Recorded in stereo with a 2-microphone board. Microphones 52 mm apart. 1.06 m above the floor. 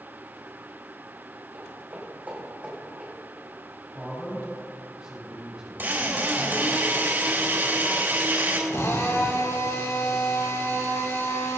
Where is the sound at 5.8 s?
45° right (ahead or behind), 3.5 m.